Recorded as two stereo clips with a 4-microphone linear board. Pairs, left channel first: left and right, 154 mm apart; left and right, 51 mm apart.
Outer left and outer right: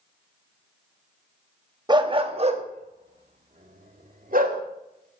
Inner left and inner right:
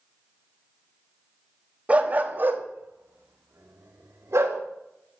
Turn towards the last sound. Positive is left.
turn(degrees=-65)  # may be behind; listen again after turning